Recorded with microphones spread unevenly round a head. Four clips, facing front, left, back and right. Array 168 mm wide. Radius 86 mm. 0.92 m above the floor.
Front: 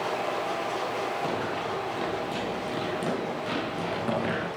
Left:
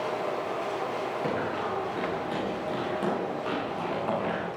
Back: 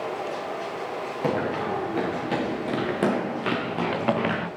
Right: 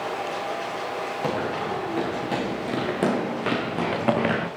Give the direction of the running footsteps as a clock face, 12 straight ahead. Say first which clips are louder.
Right 5 dB, back 4 dB; 5 o'clock.